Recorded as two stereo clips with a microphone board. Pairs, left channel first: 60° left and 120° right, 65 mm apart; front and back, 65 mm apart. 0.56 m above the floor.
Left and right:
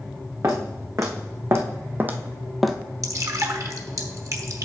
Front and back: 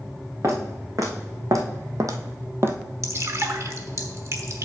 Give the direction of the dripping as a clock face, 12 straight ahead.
5 o'clock.